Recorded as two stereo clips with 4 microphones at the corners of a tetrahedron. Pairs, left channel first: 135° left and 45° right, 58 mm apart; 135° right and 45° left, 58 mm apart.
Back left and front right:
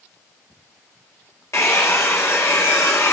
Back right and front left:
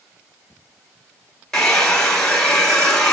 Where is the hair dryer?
145° left, 3 m.